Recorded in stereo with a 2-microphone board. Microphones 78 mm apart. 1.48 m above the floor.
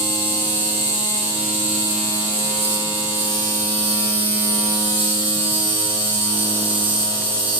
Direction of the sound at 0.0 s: 30° right (ahead or behind).